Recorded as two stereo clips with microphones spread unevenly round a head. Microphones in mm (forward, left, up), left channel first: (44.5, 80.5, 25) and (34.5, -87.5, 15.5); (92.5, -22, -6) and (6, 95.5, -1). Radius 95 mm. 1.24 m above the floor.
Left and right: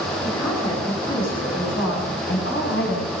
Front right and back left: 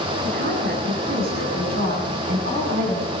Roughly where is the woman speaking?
Behind.